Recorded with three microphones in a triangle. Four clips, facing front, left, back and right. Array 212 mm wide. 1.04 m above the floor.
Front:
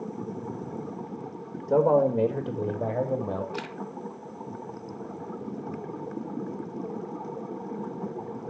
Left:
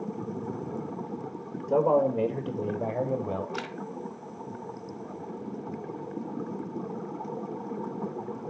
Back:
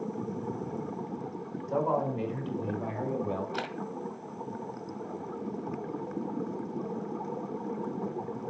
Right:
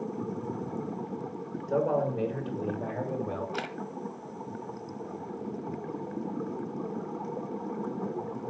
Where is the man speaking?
20° left, 4 m; by 3.4 s 25° left, 5.5 m.